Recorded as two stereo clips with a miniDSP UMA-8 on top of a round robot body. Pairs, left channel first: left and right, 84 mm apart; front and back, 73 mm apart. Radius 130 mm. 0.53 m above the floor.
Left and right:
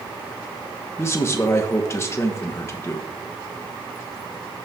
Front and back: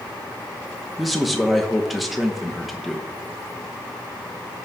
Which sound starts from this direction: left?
A man speaking, at 1.0 s.